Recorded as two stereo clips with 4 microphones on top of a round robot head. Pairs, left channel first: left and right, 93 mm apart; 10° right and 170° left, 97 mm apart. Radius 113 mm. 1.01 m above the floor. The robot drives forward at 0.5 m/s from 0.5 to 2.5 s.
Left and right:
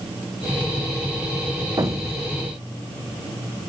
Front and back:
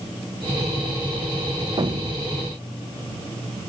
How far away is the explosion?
About 0.6 m.